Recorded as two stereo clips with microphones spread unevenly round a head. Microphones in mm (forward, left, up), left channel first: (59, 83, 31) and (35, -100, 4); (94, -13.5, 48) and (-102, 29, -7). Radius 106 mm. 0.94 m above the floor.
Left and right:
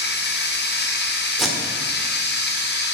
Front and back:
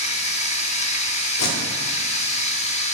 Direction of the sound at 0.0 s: 50° left.